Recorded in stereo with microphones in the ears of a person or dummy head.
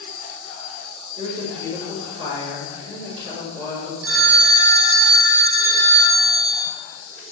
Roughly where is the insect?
Centre.